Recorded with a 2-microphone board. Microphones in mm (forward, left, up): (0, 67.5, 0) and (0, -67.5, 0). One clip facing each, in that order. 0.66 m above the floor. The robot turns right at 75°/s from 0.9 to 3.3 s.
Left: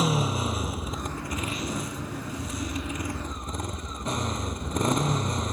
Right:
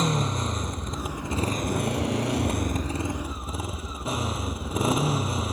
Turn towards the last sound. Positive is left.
turn(degrees=-5)